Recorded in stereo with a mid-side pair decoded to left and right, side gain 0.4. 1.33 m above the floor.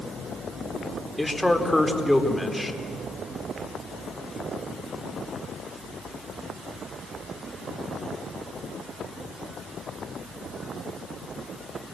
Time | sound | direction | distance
1.2 | a man speaking | 5° left | 4 m